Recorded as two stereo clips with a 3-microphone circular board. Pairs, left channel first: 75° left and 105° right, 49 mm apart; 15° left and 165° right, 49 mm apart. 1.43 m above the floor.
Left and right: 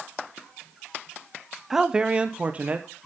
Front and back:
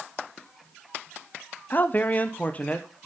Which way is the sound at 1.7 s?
25° right.